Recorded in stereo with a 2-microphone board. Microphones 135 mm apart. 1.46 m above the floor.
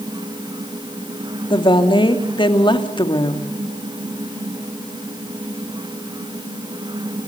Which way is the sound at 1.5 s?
35° left (ahead or behind).